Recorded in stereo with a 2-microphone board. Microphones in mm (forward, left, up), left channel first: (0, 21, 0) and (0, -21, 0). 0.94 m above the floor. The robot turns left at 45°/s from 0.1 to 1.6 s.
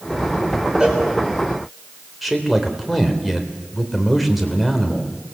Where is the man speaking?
Centre (ahead or behind), 3 m.